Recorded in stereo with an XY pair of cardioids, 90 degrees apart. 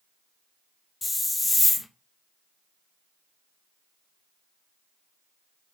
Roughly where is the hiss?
Ahead left.